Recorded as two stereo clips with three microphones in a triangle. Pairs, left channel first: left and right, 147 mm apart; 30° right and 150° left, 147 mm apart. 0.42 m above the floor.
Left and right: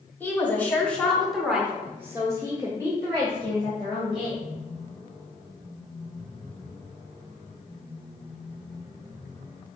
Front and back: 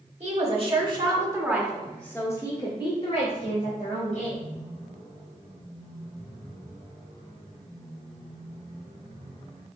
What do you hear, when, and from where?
0.2 s a woman speaking: 160° left, 1.4 m; by 4.4 s 35° right, 2 m